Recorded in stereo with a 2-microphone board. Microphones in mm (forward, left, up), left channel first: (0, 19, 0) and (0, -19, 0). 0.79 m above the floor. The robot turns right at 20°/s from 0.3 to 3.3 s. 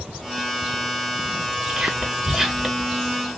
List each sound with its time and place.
1.7 s whispering: 20° right (ahead or behind), 1.3 m; by 2.9 s centre (ahead or behind), 1.3 m